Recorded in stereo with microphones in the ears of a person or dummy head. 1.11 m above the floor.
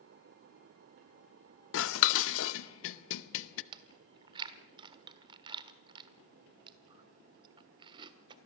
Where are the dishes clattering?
80° left, 0.7 m.